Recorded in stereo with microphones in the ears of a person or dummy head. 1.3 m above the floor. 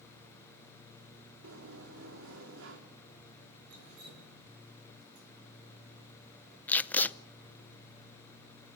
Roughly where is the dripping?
Right.